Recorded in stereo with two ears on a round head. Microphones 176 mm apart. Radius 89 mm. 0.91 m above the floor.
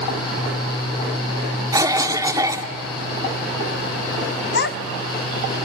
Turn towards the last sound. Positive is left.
turn(degrees=60)  # may be behind; listen again after turning